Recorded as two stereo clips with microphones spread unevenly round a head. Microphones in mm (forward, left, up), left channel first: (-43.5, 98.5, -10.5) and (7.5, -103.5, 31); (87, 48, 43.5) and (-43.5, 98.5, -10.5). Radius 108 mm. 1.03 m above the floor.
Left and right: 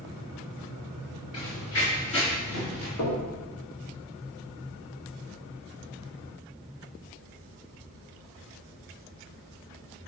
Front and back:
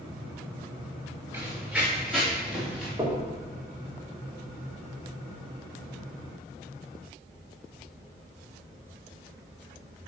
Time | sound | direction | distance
1.3 | running footsteps | 75° left | 4.5 m
3.0 | knocking | 100° left | 2.5 m